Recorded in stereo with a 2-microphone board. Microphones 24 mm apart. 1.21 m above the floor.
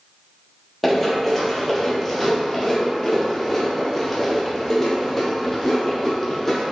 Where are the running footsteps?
10° left (ahead or behind), 1.7 m; by 6.6 s 15° left (ahead or behind), 2.5 m.